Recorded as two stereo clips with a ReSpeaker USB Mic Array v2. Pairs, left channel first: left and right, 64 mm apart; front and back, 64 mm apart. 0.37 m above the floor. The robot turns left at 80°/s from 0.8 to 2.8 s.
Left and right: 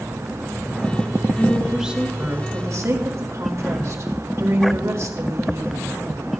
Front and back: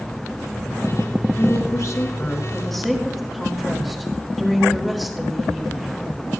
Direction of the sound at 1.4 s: 25° left.